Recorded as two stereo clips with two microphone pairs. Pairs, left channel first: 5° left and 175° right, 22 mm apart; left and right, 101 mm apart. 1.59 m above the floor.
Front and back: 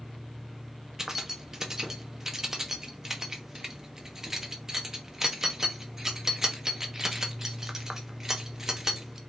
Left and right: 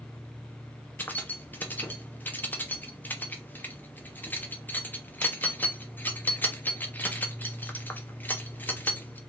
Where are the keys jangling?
145° left, 0.5 m.